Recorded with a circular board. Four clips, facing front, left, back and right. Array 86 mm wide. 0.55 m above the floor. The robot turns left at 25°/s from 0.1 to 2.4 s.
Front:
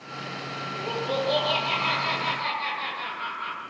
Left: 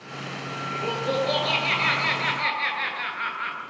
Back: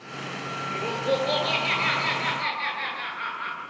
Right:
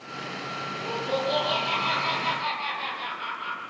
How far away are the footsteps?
No footsteps in this recording.